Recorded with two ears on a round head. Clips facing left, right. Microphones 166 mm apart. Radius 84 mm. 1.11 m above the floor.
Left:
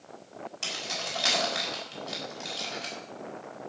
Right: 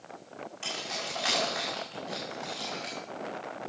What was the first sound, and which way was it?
Keys jangling, 45° left (ahead or behind).